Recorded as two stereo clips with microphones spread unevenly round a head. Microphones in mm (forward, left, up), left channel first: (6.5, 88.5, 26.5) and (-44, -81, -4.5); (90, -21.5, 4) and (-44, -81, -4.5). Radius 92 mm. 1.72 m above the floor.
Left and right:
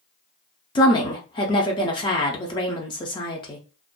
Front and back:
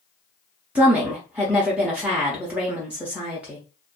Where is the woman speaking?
120° left, 0.6 m.